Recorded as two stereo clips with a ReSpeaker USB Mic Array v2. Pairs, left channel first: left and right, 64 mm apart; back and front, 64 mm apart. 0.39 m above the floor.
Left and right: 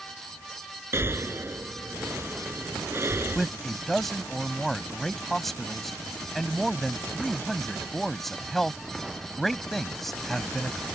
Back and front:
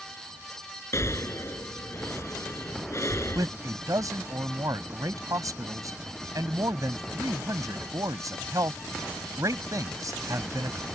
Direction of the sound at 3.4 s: 5° left.